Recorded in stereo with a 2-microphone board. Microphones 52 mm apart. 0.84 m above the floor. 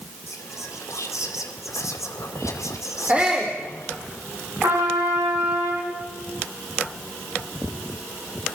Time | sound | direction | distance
0.3 | whispering | 80° left | 2.5 m
3.1 | a shout | 20° right (ahead or behind) | 2.5 m
4.6 | a trumpet | 80° right | 8 m